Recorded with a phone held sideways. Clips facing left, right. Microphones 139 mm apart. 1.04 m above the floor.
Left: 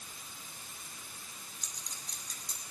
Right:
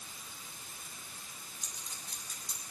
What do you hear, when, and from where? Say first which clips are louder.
1.6 s a clink: even; 5° right (ahead or behind), 6.5 m